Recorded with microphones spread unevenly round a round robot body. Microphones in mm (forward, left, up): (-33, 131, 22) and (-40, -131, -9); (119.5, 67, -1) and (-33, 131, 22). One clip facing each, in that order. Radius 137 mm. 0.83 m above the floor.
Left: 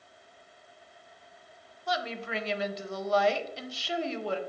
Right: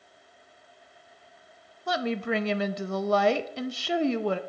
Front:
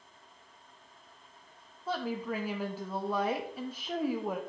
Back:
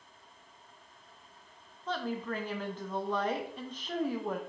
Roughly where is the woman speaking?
Right.